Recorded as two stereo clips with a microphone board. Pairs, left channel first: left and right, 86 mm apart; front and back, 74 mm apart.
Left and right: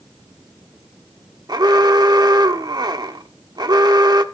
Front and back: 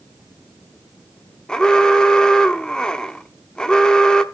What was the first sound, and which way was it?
An alarm, 75° right.